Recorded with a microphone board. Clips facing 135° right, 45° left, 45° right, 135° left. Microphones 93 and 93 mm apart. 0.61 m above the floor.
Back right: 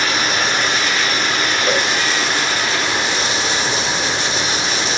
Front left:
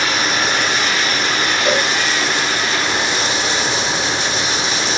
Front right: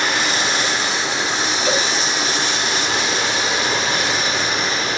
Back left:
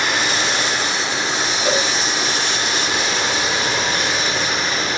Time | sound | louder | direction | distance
1.6 | a cowbell | front left 2 dB, back left 1 dB | 60° left | 4 m